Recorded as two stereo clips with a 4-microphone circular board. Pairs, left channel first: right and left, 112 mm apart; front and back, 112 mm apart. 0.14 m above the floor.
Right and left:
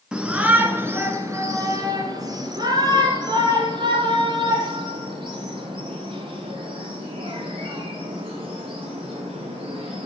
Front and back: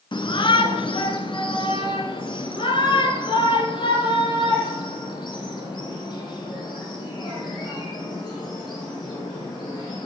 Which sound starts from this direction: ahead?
A shout, at 0.1 s.